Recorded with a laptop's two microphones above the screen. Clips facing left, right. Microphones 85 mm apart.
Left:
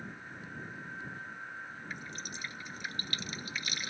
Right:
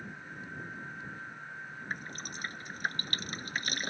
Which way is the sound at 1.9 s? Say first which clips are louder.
Right 5 dB; 50° right (ahead or behind).